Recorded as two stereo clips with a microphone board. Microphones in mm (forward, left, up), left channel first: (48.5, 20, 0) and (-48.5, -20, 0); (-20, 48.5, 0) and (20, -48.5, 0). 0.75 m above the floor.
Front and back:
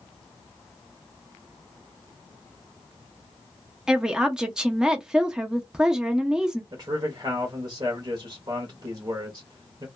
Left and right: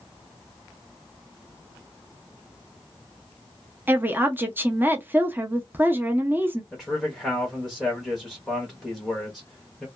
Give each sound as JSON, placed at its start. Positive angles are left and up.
{"t": 3.9, "sound": "a woman speaking", "azimuth_deg": -85, "distance_m": 0.5}
{"t": 6.7, "sound": "a man speaking", "azimuth_deg": -160, "distance_m": 0.8}